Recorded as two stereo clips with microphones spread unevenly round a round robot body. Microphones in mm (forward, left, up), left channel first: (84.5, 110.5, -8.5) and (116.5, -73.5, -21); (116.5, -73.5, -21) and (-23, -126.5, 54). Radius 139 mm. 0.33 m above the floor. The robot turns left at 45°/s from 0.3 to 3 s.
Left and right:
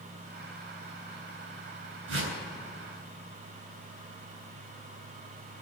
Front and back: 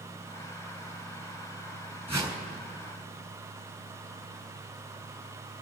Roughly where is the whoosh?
Right.